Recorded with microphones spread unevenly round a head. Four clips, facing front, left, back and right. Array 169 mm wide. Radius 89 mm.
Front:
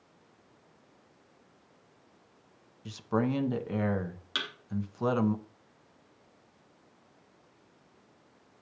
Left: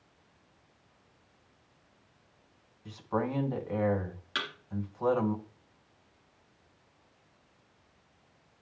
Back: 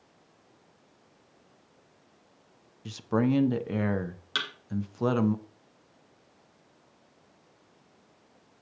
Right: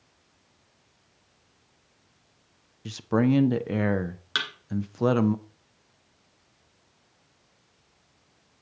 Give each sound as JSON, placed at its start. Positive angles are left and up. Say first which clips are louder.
{"t": 2.9, "sound": "a man speaking", "louder": "right 9 dB, back 3 dB", "azimuth_deg": -100, "distance_m": 1.0}
{"t": 4.3, "sound": "a thud", "louder": "right 4 dB, back 3 dB", "azimuth_deg": -175, "distance_m": 2.0}